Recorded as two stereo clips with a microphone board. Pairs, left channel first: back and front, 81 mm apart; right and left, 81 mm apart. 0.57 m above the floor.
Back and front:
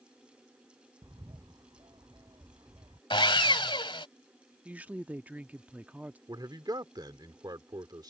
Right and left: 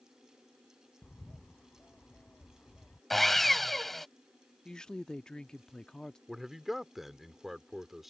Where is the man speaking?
Straight ahead.